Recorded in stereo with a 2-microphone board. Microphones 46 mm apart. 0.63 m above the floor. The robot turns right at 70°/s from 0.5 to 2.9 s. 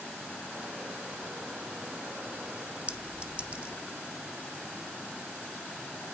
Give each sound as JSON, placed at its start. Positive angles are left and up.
{"t": 2.9, "sound": "a clink", "side_deg": -25, "distance_m": 0.6}